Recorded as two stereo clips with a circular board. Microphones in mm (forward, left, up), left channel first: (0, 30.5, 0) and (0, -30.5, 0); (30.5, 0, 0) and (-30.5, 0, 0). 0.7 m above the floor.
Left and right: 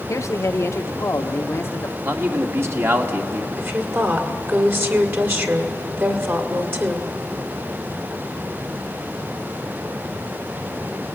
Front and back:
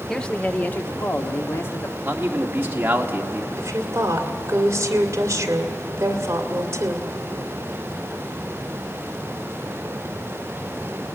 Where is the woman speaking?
140° right, 1.9 m.